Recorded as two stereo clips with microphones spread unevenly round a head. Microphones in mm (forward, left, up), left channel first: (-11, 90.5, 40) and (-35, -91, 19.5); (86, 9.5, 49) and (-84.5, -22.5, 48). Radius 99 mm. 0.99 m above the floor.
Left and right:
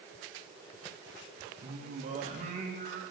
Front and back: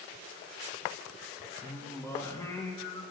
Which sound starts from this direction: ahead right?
Singing, at 1.6 s.